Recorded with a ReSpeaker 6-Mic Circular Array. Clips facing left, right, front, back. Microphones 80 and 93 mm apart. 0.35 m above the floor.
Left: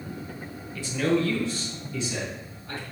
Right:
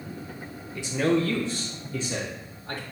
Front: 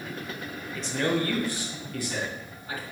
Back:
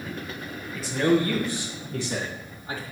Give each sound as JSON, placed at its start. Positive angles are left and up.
{"t": 0.8, "sound": "a man speaking", "azimuth_deg": -95, "distance_m": 0.8}